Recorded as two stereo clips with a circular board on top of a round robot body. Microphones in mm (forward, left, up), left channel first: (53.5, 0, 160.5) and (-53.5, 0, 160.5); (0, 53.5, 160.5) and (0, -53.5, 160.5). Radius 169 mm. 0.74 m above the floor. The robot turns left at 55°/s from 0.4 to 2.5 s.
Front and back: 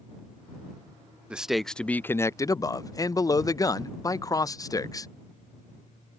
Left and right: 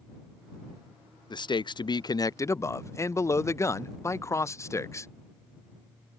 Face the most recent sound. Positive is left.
turn(degrees=40)